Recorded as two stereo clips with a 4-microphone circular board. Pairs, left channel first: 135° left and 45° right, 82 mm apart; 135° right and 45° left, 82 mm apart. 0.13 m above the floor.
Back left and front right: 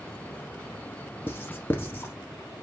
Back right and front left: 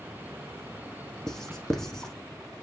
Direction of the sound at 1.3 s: 150° left.